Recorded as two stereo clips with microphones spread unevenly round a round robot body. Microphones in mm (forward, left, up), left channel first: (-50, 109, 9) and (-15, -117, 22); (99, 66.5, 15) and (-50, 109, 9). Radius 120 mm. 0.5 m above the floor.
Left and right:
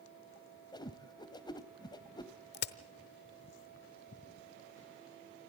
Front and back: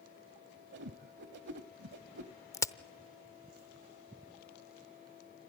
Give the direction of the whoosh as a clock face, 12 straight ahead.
6 o'clock.